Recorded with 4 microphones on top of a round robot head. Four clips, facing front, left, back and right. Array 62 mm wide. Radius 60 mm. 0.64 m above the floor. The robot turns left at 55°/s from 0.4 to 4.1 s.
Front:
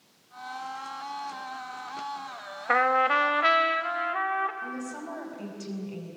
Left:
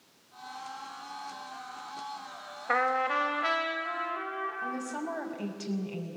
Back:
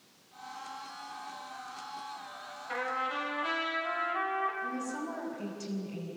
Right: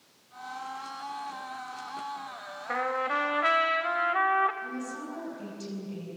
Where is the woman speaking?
85° left, 5 m.